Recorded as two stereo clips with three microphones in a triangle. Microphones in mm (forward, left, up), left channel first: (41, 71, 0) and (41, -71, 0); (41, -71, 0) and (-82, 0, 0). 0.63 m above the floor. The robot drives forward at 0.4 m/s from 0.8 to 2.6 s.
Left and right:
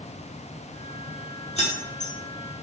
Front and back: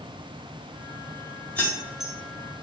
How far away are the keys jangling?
About 0.7 m.